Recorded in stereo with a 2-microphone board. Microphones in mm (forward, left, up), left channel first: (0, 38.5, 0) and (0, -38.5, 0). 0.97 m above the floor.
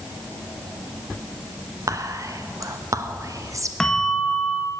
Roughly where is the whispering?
Right.